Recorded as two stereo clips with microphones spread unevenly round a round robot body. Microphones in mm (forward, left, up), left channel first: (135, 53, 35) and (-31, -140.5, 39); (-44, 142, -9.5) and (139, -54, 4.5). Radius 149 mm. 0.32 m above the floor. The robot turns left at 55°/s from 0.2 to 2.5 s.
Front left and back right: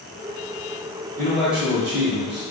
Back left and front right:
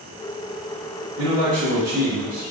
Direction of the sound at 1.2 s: 25° right.